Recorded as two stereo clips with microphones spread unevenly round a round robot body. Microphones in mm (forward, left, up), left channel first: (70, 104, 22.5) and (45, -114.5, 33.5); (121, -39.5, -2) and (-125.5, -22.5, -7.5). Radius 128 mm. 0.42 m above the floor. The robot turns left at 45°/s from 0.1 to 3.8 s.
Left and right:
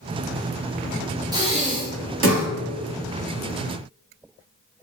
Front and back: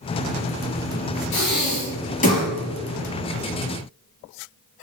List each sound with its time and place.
1.3 s breathing: 25° right, 1.4 m; by 2.5 s 75° right, 1.4 m